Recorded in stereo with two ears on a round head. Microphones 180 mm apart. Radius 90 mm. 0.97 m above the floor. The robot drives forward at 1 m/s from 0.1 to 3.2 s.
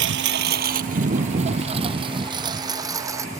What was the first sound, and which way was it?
A lawn mower, 65° right (ahead or behind).